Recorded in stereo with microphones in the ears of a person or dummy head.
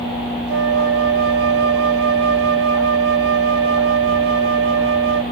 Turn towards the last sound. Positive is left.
turn(degrees=-75)  # may be behind; listen again after turning